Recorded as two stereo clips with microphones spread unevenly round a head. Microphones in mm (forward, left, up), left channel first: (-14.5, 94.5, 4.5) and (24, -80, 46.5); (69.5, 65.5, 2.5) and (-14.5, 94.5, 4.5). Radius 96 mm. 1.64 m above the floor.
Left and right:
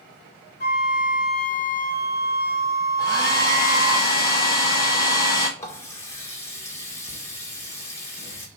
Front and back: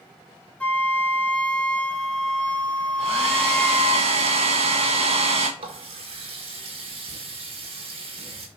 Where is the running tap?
175° right, 1.3 m.